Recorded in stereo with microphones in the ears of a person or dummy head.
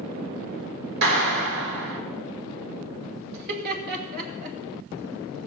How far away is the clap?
About 2 m.